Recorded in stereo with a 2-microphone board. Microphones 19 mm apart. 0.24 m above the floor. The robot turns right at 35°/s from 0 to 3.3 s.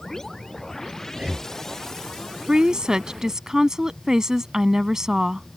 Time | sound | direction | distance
1.1 | breathing | 60° right (ahead or behind) | ?
2.5 | a woman speaking | 45° right (ahead or behind) | ?